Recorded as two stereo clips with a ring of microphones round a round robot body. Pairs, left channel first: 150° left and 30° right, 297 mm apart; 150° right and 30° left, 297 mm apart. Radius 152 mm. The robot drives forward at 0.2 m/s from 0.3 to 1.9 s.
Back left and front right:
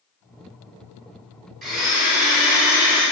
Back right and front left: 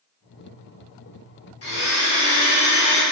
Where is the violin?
I don't hear a violin.